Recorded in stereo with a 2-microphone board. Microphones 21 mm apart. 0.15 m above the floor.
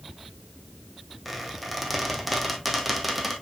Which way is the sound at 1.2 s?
Centre (ahead or behind).